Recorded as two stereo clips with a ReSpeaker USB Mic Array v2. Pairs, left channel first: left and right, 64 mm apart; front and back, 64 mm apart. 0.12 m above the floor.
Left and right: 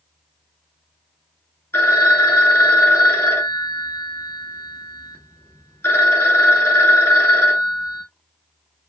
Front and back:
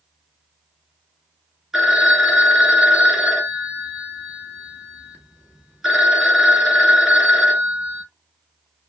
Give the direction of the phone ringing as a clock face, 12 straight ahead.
9 o'clock.